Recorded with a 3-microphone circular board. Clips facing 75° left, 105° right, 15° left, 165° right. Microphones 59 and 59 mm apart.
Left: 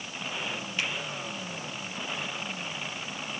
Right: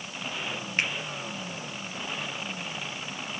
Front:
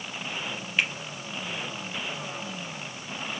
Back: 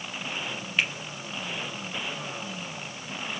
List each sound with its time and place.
0.8 s a finger snap: 75° right, 2.5 m